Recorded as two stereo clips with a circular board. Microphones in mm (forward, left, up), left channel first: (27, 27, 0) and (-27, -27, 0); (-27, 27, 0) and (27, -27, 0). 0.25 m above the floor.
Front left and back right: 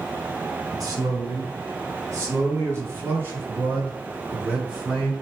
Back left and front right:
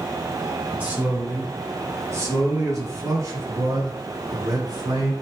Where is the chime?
No chime in this recording.